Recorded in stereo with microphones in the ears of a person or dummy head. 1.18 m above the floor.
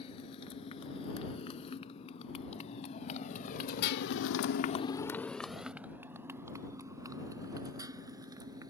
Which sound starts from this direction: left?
A motorcycle, at 0.0 s.